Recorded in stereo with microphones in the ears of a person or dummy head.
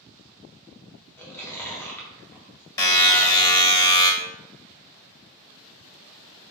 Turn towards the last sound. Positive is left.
turn(degrees=20)  # may be behind; listen again after turning